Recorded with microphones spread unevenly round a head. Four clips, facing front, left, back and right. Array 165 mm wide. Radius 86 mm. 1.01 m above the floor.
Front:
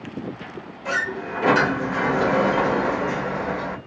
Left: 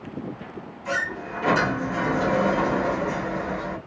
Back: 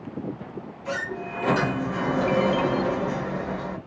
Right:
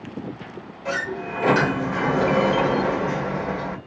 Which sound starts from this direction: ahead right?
A sliding door, at 0.8 s.